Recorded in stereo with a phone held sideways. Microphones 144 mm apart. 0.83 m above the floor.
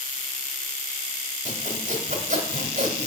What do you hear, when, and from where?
1.4 s sawing: 55° right (ahead or behind), 1.3 m